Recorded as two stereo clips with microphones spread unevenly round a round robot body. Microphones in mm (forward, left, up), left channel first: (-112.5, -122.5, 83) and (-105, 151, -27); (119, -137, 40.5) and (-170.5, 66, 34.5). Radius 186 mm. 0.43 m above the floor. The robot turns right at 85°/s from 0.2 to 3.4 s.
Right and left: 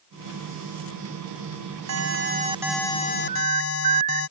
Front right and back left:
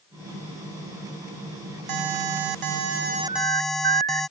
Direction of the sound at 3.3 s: 65° left.